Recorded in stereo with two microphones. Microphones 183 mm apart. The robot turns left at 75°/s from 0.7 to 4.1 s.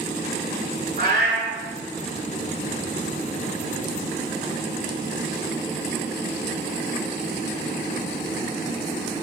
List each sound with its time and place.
1.0 s a cat meowing: 85° right, 1.8 m; by 1.6 s 125° right, 1.8 m